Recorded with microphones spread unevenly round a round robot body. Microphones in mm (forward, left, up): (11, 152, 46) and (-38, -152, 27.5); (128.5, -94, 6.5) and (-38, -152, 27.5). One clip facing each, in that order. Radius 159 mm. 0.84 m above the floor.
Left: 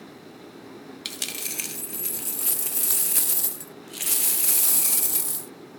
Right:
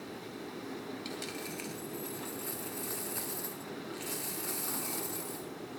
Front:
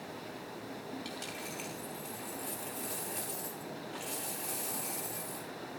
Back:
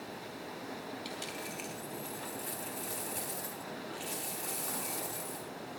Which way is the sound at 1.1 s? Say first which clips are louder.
Right 1 dB, back 1 dB; 115° left.